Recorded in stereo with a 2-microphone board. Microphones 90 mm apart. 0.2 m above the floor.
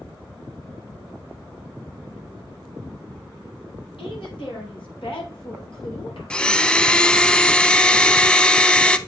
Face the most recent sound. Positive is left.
turn(degrees=10)  # may be behind; listen again after turning